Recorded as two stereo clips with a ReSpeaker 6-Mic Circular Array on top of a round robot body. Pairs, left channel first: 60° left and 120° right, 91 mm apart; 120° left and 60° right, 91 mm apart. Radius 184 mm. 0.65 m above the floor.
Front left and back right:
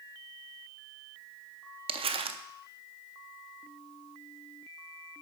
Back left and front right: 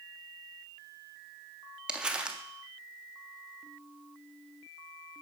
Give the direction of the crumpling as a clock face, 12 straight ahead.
5 o'clock.